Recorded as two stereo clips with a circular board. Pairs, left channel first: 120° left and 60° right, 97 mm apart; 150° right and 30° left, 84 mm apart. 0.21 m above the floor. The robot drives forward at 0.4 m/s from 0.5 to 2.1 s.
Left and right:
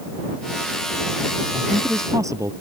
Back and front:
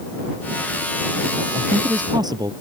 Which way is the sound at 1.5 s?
5° right.